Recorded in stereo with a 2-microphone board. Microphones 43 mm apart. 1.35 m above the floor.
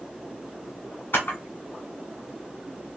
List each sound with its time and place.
1.1 s a camera shutter: 45° left (ahead or behind), 1.5 m